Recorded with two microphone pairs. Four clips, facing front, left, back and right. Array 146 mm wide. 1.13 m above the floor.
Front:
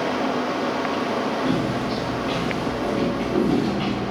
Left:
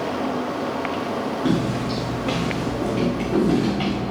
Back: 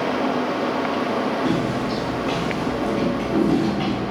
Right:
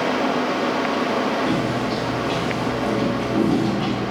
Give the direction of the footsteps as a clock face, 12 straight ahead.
8 o'clock.